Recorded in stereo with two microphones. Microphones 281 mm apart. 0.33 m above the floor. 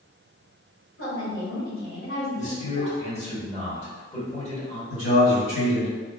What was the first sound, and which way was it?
A woman speaking, 45° left (ahead or behind).